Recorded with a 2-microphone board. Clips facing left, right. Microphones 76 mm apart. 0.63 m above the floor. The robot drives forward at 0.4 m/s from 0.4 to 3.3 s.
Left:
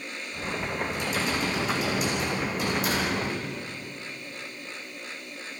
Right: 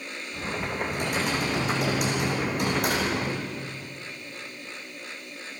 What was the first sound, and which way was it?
Typing on a keyboard, 55° right (ahead or behind).